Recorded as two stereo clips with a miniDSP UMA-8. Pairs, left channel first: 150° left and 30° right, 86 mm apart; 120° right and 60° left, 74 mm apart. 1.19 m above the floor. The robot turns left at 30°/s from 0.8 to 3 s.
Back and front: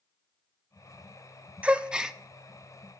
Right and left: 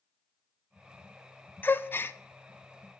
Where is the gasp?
90° right, 0.7 m; by 2.2 s 105° right, 0.7 m.